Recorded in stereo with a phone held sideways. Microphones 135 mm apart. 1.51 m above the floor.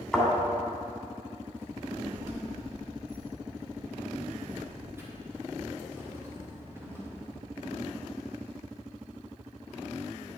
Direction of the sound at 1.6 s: 15° right (ahead or behind).